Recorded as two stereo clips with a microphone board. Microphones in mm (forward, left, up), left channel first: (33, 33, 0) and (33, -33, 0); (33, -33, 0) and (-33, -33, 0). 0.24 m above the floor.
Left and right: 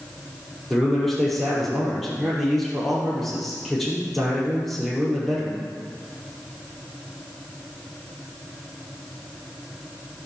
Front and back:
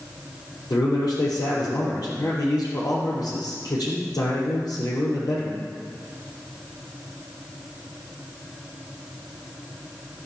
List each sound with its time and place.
0.7 s a man speaking: 5° left, 7.5 m